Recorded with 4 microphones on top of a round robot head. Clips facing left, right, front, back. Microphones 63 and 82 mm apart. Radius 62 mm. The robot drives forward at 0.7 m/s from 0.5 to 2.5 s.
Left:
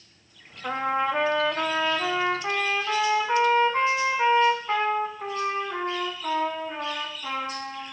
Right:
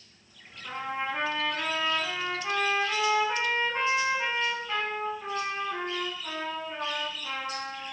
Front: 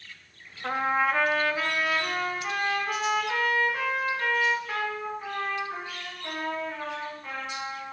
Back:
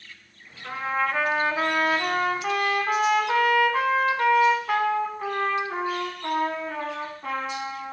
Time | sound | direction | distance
0.6 | a trumpet | 55° left | 0.6 m